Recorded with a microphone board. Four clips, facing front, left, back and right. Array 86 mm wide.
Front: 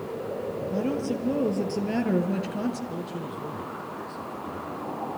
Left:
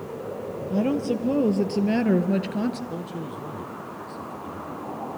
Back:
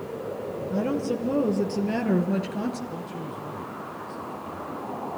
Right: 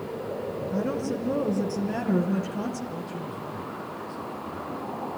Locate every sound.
0.7 s a woman speaking: 90° left, 2.5 m; by 2.8 s 95° left, 1.7 m
2.9 s a man speaking: 55° left, 4 m